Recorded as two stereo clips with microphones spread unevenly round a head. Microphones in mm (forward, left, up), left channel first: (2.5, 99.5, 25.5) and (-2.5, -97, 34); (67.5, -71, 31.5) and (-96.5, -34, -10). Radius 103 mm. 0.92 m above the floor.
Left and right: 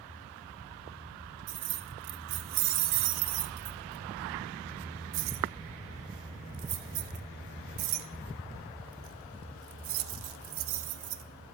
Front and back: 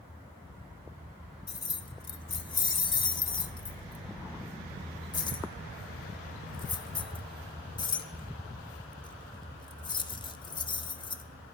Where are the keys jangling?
80° right, 0.6 m.